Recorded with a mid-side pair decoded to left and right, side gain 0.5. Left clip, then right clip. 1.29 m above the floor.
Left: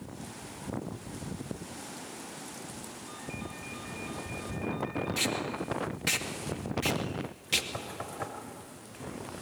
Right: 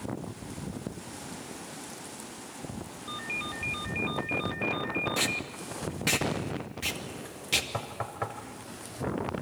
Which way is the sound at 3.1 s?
65° right.